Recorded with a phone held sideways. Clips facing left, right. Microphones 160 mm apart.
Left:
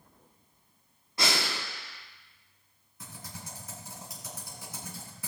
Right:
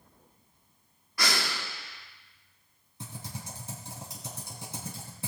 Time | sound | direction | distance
1.2 | breathing | 25° left (ahead or behind) | 1.2 m
3.0 | typing on a keyboard | 30° right (ahead or behind) | 3.5 m